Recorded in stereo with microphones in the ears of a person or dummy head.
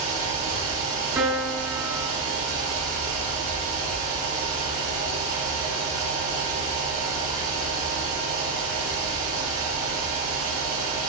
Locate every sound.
0.0 s a fan: 80° right, 1.8 m
1.1 s a piano: 15° right (ahead or behind), 0.6 m